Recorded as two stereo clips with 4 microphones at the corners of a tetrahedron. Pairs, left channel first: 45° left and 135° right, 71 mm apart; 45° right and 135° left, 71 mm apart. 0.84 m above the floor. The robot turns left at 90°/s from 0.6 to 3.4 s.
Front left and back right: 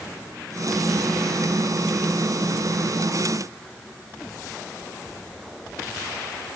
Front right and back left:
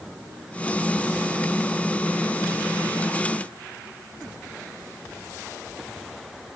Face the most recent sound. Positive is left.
No sound to turn to.